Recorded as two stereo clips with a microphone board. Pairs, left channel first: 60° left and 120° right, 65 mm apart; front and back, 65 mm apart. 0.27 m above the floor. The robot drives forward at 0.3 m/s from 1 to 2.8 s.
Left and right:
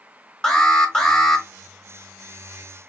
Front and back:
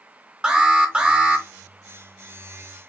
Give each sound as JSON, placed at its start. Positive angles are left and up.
{"t": 0.4, "sound": "an alarm", "azimuth_deg": 125, "distance_m": 0.9}